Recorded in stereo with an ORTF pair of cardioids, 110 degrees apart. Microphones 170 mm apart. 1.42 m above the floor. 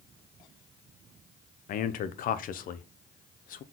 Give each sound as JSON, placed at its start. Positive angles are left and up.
{"t": 1.7, "sound": "a man speaking", "azimuth_deg": 55, "distance_m": 0.6}